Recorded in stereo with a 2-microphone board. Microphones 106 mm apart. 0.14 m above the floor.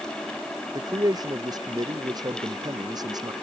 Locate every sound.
0.8 s a man speaking: 40° right (ahead or behind)